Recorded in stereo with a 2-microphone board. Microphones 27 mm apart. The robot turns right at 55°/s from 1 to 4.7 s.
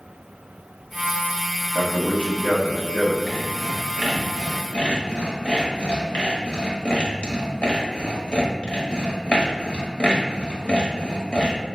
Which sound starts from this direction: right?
Sawing, at 3.3 s.